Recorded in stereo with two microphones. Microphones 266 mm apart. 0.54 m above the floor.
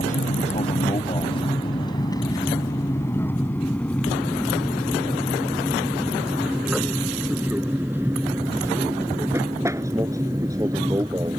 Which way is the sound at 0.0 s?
30° left (ahead or behind).